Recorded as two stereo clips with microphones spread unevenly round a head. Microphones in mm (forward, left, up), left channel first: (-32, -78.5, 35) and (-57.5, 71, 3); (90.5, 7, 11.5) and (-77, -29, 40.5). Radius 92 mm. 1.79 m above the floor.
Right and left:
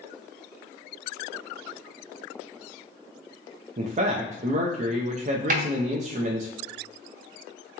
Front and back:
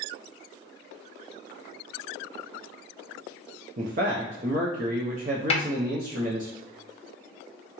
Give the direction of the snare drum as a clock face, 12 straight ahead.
10 o'clock.